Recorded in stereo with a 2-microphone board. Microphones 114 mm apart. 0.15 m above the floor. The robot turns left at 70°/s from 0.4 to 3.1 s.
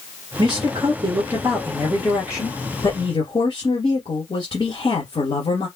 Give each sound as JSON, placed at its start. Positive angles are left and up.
{"t": 0.4, "sound": "a man speaking", "azimuth_deg": -70, "distance_m": 1.8}